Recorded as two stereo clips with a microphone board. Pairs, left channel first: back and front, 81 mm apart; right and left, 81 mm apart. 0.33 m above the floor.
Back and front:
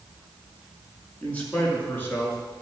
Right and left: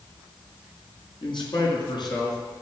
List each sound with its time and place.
1.2 s a man speaking: 105° right, 4.5 m; by 2.4 s 120° right, 5.5 m